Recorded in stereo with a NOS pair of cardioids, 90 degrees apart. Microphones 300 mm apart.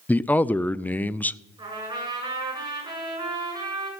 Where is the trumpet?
15° right, 8 m.